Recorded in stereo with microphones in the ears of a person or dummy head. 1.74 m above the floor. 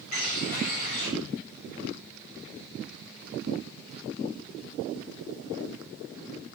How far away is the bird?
About 4 m.